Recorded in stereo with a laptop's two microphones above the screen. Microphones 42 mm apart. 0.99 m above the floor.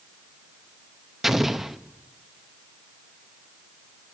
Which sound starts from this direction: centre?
An explosion, at 1.2 s.